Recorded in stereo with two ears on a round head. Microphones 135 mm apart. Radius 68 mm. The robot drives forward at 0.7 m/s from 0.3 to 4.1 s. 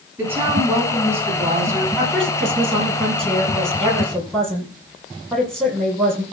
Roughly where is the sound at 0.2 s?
Centre.